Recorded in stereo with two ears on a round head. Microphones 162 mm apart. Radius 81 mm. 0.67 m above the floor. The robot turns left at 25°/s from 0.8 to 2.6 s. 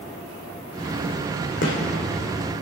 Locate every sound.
1.6 s a gunshot: 70° left (ahead or behind), 2.5 m